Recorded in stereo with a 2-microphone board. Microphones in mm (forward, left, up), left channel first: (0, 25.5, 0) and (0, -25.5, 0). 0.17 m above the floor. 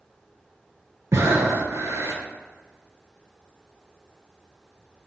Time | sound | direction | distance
1.1 | breathing | 65° right (ahead or behind) | 0.6 m